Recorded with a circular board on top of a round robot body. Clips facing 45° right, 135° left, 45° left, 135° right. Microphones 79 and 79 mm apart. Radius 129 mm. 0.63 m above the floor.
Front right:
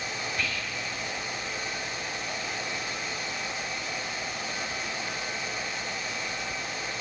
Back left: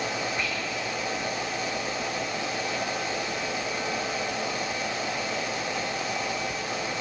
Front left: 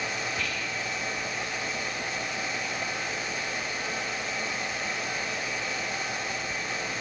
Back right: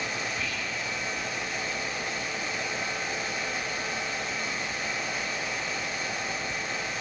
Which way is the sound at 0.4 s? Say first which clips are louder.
Back left 2 dB, front left 1 dB; 65° left.